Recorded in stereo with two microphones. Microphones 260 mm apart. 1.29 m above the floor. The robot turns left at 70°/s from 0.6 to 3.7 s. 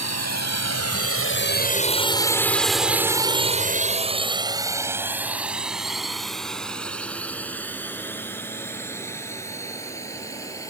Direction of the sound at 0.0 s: 80° left.